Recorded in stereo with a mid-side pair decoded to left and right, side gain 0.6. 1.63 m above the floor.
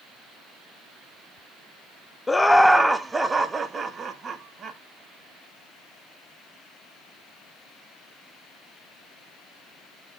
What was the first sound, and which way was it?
Laughter, 15° left.